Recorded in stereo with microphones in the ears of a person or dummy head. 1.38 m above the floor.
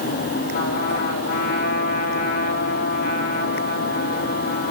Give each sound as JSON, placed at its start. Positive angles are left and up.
{"t": 0.5, "sound": "a trumpet", "side_deg": 55, "distance_m": 3.5}